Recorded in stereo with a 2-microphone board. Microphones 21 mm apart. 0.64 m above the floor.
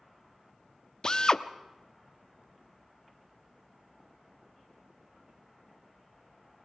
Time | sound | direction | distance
1.0 | a drill | 35° left (ahead or behind) | 0.7 m